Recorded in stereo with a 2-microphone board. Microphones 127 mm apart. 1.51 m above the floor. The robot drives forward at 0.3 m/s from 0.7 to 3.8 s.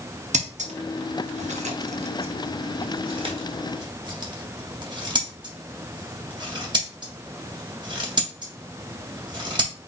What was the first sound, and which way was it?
Scissors, 80° right.